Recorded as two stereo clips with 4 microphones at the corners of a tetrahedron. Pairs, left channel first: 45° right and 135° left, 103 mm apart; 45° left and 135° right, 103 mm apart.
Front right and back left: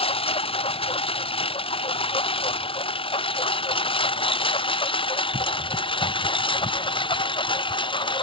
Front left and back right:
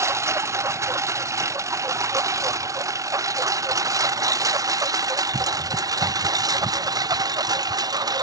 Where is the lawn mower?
70° right; by 8.2 s 85° right.